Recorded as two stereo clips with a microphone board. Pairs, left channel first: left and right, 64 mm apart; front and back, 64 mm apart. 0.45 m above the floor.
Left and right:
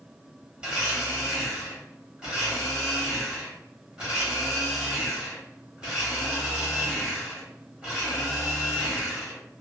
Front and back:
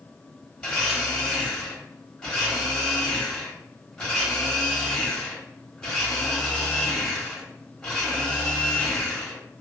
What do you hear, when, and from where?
0.6 s a blender: 55° right, 1.2 m